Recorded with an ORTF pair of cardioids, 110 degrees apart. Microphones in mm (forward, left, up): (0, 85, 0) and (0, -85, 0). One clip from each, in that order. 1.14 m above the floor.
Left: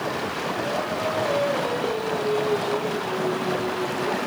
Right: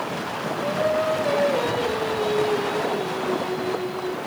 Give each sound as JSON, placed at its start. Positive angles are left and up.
{"t": 0.6, "sound": "singing", "azimuth_deg": -35, "distance_m": 4.0}